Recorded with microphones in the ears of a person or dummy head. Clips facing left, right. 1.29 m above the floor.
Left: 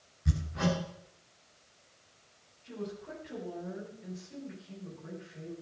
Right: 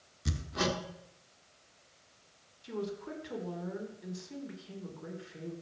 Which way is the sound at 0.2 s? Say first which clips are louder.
Left 2 dB; 60° right (ahead or behind).